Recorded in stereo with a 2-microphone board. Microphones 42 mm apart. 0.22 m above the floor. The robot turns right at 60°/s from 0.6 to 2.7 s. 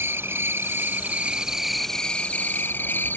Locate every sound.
0.0 s an insect: 70° right; by 3.2 s 55° left